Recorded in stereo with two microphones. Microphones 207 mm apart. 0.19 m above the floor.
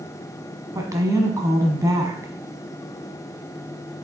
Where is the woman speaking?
15° right (ahead or behind), 1.5 m.